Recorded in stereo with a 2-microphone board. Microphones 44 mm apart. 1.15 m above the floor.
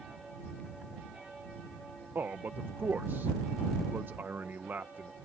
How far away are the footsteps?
I don't hear footsteps.